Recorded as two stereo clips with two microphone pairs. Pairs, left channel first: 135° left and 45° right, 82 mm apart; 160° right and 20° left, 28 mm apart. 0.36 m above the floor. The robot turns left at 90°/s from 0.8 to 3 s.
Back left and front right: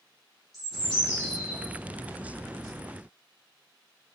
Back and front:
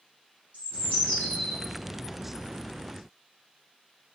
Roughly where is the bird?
Behind right.